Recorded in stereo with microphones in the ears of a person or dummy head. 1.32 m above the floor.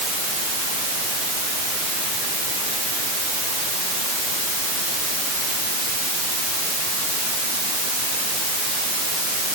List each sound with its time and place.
Only background noise.